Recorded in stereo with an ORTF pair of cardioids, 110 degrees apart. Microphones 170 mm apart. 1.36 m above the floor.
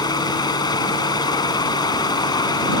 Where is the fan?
25° left.